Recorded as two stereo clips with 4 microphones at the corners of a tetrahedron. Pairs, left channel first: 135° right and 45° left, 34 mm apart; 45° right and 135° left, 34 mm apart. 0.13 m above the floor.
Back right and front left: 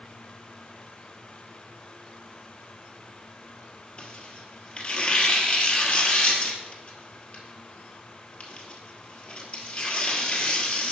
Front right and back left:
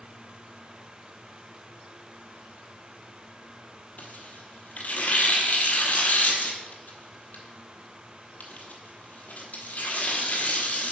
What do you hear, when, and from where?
4.0 s tearing paper: 80° right, 1.1 m